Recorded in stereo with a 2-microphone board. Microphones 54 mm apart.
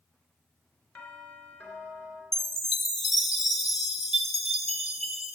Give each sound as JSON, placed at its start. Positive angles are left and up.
{"t": 0.9, "sound": "a doorbell", "side_deg": 40, "distance_m": 3.0}
{"t": 2.3, "sound": "a chime", "side_deg": 0, "distance_m": 1.2}